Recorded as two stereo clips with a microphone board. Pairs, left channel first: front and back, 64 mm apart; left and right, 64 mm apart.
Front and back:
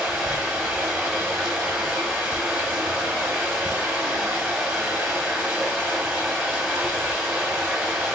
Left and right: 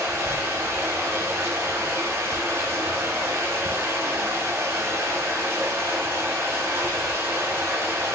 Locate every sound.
0.0 s running water: 110° right, 1.0 m